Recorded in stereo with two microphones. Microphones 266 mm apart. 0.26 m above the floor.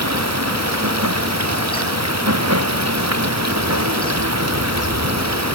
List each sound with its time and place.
0.0 s running water: 75° right (ahead or behind)